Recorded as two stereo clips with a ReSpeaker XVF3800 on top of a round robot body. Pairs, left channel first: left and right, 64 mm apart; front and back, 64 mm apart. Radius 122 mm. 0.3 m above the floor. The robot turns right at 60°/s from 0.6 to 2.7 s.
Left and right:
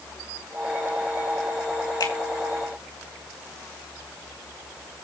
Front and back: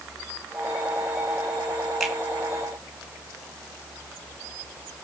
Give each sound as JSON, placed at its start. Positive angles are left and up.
{"t": 2.0, "sound": "a finger snap", "azimuth_deg": 90, "distance_m": 5.0}